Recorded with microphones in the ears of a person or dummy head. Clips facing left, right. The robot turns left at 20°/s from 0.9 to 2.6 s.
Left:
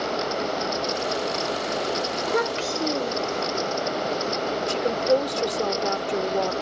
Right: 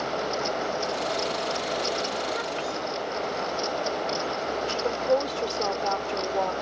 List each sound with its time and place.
2.2 s a child speaking: 75° left (ahead or behind); by 3.5 s 65° left (ahead or behind)
4.7 s a woman speaking: 25° left (ahead or behind)